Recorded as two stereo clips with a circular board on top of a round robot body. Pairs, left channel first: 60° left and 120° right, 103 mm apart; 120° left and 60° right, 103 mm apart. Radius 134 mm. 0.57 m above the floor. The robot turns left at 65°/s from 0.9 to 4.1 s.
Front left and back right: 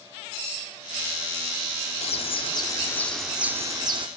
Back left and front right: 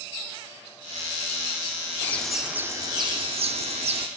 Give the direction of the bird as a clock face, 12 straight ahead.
10 o'clock.